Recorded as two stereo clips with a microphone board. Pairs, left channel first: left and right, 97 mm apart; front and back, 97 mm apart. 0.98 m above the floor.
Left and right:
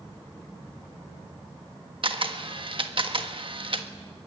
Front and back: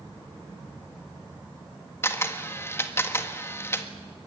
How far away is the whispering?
No whispering in this recording.